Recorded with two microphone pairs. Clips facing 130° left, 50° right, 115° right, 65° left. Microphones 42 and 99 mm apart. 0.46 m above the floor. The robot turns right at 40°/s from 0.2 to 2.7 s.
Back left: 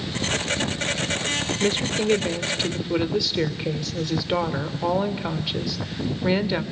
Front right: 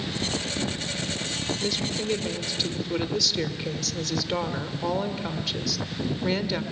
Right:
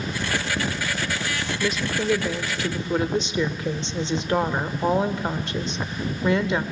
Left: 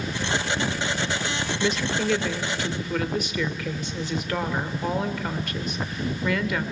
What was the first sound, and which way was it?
A woman speaking, 150° left.